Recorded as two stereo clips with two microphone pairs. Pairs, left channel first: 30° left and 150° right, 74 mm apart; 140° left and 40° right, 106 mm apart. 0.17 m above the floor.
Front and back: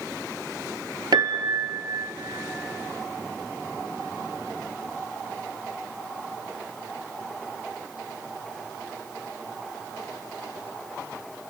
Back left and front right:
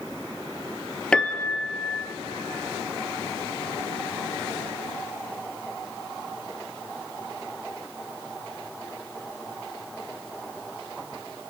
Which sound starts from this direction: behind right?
A piano, at 1.1 s.